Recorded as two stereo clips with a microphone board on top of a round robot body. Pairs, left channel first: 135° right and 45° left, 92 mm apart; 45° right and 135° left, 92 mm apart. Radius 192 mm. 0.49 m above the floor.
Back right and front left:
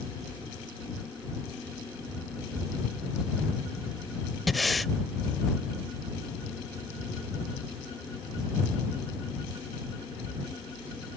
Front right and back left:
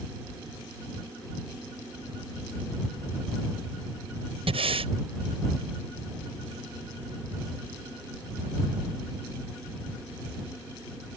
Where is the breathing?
135° left.